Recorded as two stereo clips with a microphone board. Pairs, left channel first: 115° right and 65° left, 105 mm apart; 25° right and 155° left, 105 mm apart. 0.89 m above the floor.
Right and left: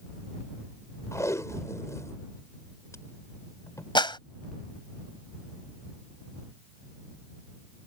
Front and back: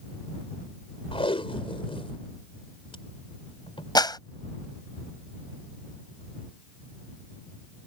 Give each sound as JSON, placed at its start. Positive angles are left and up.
{"t": 1.1, "sound": "tape being pulled", "azimuth_deg": -55}
{"t": 4.0, "sound": "a clap", "azimuth_deg": -75}